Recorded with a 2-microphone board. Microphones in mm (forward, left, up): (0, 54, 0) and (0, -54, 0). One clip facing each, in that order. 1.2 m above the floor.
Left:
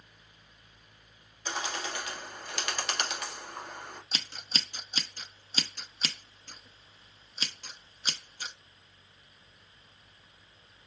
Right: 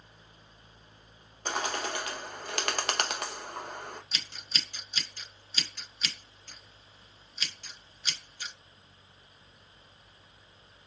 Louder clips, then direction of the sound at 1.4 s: Right 3 dB; 55° right (ahead or behind).